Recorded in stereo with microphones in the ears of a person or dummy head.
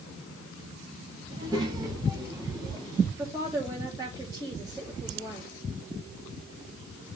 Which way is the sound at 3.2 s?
25° right (ahead or behind).